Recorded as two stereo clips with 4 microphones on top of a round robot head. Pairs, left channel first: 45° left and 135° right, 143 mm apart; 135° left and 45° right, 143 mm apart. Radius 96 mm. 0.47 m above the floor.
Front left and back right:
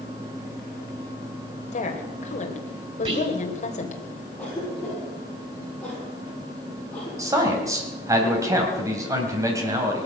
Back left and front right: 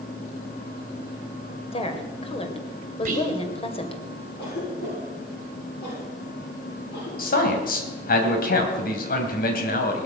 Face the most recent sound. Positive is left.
turn(degrees=155)